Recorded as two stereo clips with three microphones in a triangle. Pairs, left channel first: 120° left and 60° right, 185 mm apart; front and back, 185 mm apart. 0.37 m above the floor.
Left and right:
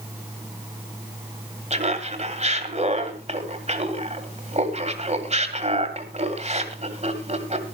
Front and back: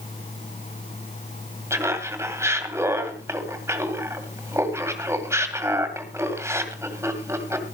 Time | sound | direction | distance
1.7 | laughter | 110° right | 2 m